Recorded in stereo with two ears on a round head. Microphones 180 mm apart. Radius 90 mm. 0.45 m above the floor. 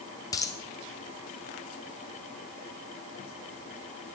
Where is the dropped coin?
20° left (ahead or behind), 1.4 m.